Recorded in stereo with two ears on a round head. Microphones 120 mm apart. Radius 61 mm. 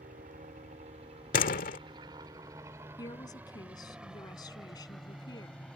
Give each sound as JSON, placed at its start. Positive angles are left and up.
{"t": 0.0, "sound": "a helicopter", "side_deg": -60}
{"t": 1.3, "sound": "a door slam", "side_deg": 70}
{"t": 3.0, "sound": "a woman speaking", "side_deg": 30}